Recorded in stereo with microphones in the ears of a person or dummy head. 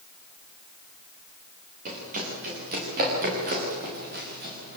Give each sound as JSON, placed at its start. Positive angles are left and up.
{"t": 1.9, "sound": "running footsteps", "side_deg": -45, "distance_m": 10.0}